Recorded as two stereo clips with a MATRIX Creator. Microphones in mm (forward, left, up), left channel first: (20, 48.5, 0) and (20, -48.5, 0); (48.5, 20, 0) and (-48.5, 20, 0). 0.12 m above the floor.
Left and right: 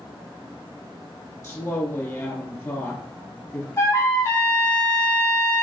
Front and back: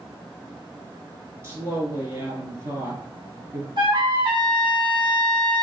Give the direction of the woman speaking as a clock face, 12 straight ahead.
7 o'clock.